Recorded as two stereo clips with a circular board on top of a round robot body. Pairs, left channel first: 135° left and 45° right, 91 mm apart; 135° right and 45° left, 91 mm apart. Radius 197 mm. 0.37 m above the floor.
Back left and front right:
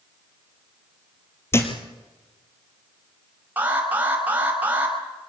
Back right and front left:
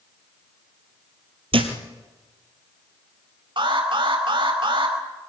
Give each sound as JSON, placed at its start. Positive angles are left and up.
{"t": 1.5, "sound": "a thud", "azimuth_deg": 70, "distance_m": 2.5}
{"t": 3.6, "sound": "an alarm", "azimuth_deg": 25, "distance_m": 5.5}